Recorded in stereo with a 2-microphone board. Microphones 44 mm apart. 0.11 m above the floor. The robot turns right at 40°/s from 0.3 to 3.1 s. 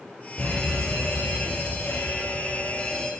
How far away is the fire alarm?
About 4.5 m.